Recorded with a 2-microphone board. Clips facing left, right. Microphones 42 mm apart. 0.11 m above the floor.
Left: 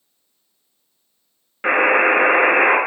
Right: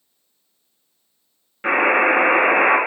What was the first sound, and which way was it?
A buzzer, 20° left (ahead or behind).